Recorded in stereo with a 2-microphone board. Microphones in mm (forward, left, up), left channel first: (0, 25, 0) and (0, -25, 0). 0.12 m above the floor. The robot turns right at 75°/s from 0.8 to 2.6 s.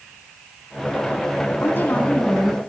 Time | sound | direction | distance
1.6 | a woman speaking | 130° left | 4.5 m